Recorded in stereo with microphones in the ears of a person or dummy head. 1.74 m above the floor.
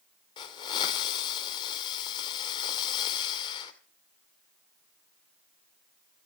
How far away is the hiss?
About 2.5 m.